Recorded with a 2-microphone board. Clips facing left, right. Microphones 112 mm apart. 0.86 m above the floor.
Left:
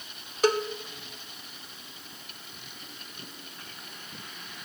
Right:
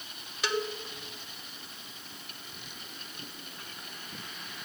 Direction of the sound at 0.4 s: 45° left (ahead or behind).